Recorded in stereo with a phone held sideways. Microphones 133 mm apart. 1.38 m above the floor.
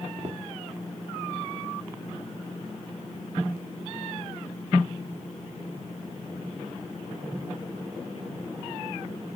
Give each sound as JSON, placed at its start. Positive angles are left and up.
{"t": 0.2, "sound": "footsteps", "side_deg": -50, "distance_m": 2.0}